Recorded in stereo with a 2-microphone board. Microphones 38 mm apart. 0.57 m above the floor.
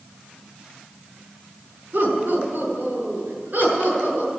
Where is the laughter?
45° right (ahead or behind), 5 m; by 4.3 s 50° right (ahead or behind), 8 m.